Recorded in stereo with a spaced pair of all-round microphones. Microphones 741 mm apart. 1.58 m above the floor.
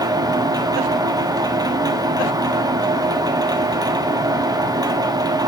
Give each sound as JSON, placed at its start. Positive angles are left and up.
{"t": 0.0, "sound": "a machine running", "side_deg": -5, "distance_m": 0.9}